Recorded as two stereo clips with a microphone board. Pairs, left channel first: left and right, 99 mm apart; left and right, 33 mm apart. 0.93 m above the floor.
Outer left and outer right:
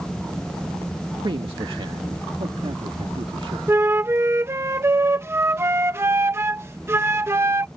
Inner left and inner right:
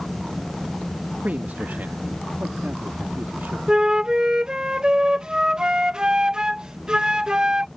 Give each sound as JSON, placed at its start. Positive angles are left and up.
{"t": 1.2, "sound": "a man speaking", "side_deg": -50}
{"t": 3.7, "sound": "a flute", "side_deg": -25}